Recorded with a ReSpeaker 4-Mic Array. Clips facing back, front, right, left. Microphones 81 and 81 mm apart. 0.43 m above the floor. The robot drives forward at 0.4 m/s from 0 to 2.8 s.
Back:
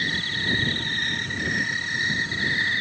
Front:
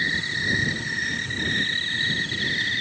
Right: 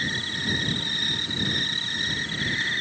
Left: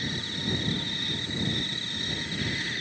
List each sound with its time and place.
0.0 s an insect: 65° right; by 2.8 s 120° right